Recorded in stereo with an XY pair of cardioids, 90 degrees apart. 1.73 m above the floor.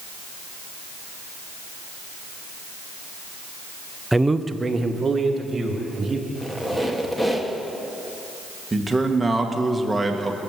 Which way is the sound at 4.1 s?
5° right.